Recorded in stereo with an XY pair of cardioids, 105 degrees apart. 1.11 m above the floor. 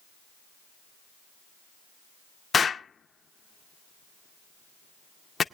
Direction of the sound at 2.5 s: 40° left.